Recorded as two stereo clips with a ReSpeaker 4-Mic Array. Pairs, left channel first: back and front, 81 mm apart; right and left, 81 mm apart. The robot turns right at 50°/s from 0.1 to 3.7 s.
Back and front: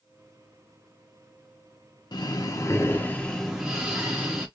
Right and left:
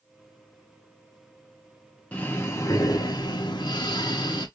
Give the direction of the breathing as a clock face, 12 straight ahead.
5 o'clock.